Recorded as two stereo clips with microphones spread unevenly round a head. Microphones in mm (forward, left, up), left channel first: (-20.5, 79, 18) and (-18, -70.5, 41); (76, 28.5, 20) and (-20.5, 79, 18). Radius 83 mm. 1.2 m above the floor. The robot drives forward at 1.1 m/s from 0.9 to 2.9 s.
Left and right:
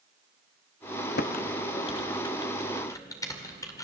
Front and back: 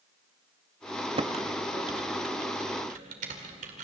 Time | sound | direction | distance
1.2 | typing on a keyboard | 115° left | 0.9 m